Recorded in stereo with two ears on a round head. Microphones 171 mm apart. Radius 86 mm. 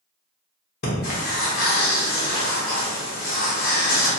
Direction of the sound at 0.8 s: 50° left (ahead or behind).